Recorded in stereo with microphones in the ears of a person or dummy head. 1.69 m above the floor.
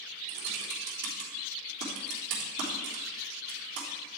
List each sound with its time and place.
0.3 s typing on a keyboard: 65° right (ahead or behind), 3.5 m